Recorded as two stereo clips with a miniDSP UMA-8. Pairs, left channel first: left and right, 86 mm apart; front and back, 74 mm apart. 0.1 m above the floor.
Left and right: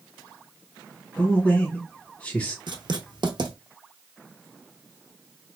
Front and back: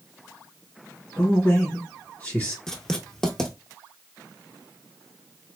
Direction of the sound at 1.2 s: 40° left.